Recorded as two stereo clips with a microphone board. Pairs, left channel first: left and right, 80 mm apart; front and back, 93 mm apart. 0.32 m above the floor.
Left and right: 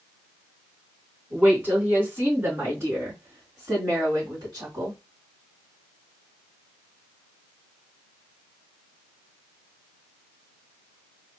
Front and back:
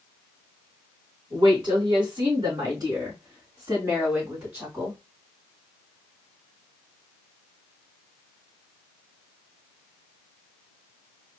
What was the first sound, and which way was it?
A woman speaking, 160° right.